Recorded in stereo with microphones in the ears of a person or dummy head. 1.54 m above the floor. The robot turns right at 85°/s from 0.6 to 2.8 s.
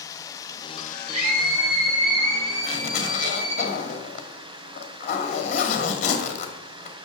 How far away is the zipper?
About 2 m.